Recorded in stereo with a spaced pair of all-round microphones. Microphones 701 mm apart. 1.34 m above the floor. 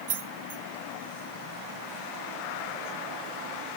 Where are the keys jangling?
70° right (ahead or behind), 0.8 m.